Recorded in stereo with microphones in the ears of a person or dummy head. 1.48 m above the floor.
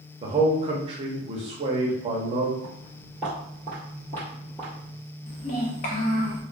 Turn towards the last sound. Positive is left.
turn(degrees=35)  # may be behind; listen again after turning